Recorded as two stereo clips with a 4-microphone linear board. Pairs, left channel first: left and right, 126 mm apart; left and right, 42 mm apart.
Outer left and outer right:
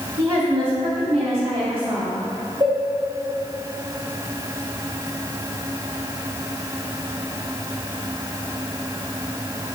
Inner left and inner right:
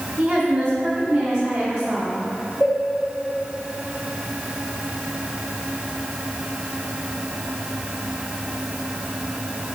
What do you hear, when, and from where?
0.2 s a woman speaking: 45° right (ahead or behind), 1.3 m; by 2.1 s 50° right (ahead or behind), 3 m
2.6 s a cowbell: 40° right (ahead or behind), 2.5 m